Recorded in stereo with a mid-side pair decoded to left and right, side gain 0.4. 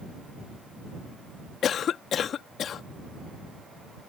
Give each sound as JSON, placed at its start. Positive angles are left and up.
{"t": 1.6, "sound": "a cough", "azimuth_deg": 65}